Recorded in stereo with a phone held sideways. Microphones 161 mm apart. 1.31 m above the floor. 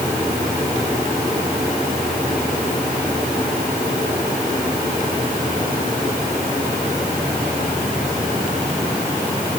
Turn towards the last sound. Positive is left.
No sound to turn to.